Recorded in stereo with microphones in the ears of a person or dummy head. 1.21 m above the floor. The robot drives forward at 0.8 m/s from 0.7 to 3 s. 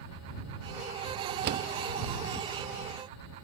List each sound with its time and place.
1.4 s a door slam: 55° right (ahead or behind), 0.9 m; by 1.7 s 60° right (ahead or behind), 0.8 m